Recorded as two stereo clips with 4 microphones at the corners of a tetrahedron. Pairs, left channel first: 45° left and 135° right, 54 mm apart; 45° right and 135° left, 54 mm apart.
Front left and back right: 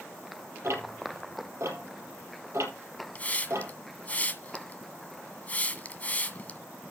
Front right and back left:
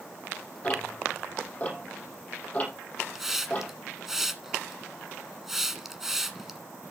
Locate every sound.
0.6 s ticking: 105° right, 4.5 m
3.1 s a hiss: 60° left, 1.2 m